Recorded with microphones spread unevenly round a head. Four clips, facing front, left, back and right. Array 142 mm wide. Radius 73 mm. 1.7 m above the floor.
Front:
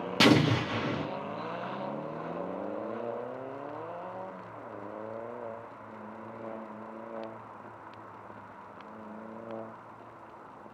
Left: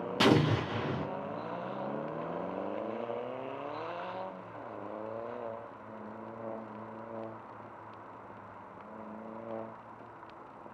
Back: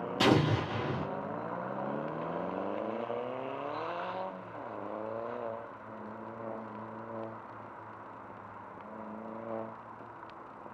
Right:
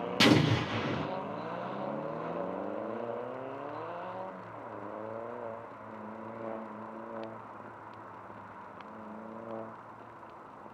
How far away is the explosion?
About 1.2 m.